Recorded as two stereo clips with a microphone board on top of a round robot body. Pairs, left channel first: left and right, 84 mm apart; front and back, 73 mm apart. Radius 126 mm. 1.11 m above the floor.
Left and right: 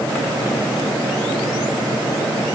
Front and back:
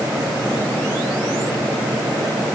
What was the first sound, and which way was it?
Only background noise.